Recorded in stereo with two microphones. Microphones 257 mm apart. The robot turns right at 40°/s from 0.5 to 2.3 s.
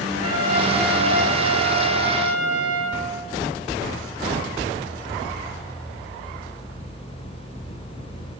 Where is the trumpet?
115° right, 10 m; by 3.0 s 40° right, 10 m.